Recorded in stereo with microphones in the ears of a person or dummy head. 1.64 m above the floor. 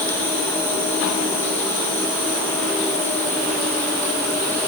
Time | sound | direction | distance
0.0 | an insect | 10° left (ahead or behind) | 3 m